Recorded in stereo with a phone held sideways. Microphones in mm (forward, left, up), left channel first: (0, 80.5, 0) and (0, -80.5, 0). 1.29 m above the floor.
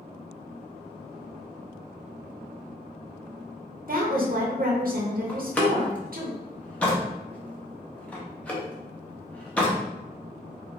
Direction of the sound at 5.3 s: 10° left (ahead or behind).